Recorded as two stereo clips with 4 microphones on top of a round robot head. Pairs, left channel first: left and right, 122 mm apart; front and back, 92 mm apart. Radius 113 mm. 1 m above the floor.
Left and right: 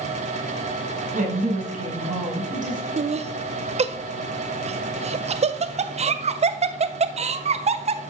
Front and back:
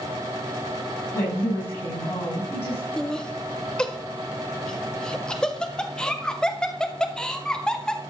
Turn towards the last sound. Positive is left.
turn(degrees=-80)